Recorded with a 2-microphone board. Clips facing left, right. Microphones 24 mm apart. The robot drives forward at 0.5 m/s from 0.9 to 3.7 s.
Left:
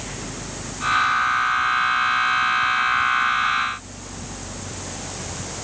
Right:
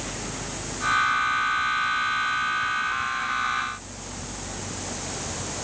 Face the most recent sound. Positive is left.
No sound to turn to.